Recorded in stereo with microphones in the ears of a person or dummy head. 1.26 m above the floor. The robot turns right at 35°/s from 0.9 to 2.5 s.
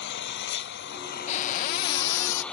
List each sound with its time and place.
0.0 s an engine running: 120° left; by 2.5 s 175° left
1.3 s a cupboard door: 35° left; by 2.4 s 75° left